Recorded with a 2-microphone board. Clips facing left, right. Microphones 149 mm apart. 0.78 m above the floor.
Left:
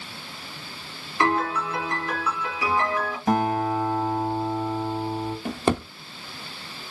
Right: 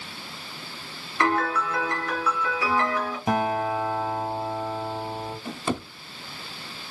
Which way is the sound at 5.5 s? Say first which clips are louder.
Left 6 dB; 65° left (ahead or behind).